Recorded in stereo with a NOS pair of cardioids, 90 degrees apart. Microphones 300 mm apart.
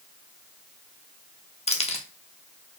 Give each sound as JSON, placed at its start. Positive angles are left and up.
{"t": 1.7, "sound": "keys jangling", "azimuth_deg": 20, "distance_m": 1.0}